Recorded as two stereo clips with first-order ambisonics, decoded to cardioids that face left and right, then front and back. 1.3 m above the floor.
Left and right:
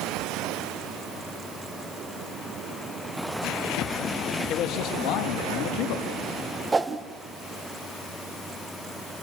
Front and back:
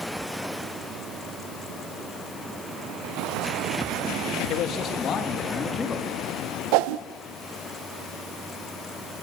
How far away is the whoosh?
About 0.8 m.